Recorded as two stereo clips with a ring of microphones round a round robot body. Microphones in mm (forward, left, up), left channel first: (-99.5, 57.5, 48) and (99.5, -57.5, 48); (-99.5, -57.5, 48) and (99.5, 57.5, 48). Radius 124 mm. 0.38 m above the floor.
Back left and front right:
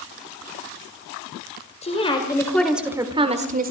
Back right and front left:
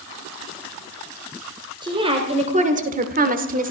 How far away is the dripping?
No dripping in this recording.